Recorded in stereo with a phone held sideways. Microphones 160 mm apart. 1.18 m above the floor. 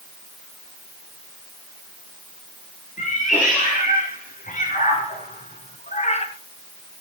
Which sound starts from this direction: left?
A cat meowing, at 3.0 s.